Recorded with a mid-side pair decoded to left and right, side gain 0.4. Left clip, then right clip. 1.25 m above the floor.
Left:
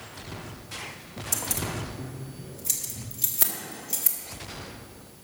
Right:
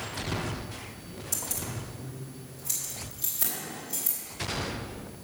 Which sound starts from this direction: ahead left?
Keys jangling, at 1.3 s.